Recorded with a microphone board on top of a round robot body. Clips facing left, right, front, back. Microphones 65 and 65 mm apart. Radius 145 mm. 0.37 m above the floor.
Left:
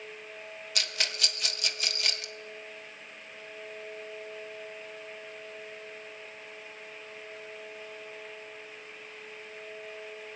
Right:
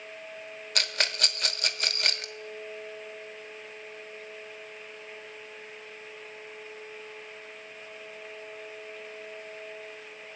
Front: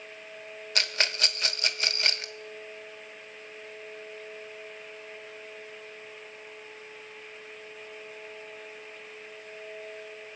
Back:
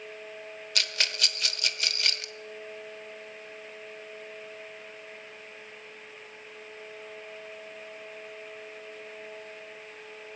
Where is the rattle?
55° right, 1.3 m.